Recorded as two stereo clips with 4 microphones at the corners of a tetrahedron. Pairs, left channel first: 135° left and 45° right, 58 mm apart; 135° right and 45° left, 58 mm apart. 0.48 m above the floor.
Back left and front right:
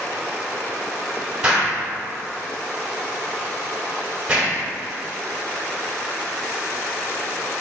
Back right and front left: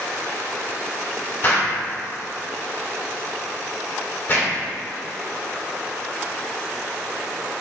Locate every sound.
1.4 s an explosion: 105° right, 1.9 m